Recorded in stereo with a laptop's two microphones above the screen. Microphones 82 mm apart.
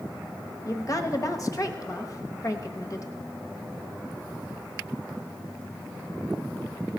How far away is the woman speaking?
About 1.1 m.